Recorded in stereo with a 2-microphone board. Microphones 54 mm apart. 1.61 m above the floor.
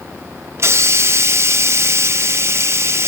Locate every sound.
0.6 s a hiss: 50° right (ahead or behind), 0.9 m